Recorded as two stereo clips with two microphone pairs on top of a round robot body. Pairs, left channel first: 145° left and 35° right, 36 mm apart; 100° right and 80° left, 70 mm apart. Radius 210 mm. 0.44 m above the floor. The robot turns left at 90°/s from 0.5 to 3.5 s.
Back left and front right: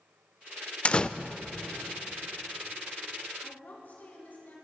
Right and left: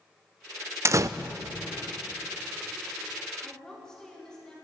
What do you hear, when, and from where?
0.8 s a door slam: 105° left, 0.7 m; by 1.1 s 85° left, 0.7 m
3.4 s a woman speaking: 175° right, 6 m; by 4.5 s straight behind, 6 m